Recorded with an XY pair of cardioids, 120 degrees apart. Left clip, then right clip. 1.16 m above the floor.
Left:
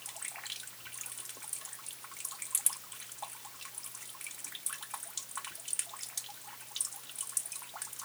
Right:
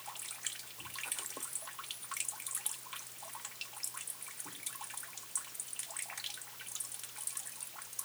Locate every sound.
Only background noise.